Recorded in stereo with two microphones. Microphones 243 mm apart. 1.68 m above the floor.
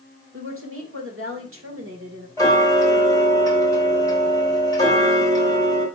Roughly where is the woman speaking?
Right.